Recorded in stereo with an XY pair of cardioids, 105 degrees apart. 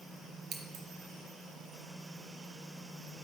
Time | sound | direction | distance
0.5 | scissors | 65° right | 0.6 m